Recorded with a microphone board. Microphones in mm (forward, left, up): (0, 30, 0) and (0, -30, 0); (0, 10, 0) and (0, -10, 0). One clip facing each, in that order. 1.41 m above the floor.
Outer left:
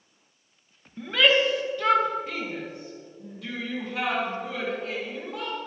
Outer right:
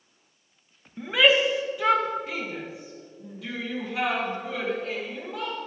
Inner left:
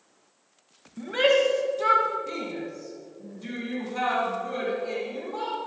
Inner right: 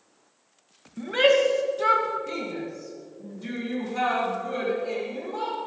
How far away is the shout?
About 1.7 m.